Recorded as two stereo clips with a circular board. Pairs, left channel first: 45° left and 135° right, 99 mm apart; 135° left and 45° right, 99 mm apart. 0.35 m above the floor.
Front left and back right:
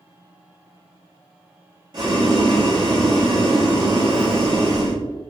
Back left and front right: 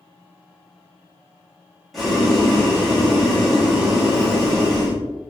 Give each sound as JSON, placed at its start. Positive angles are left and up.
{"t": 1.9, "sound": "boiling", "azimuth_deg": -135, "distance_m": 2.0}